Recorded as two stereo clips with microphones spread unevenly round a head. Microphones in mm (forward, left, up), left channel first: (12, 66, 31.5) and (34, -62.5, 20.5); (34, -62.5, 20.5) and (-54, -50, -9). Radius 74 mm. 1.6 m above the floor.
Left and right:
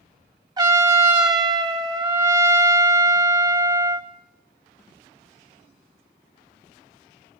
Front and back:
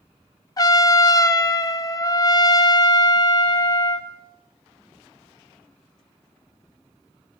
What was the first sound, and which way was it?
A trumpet, 20° right.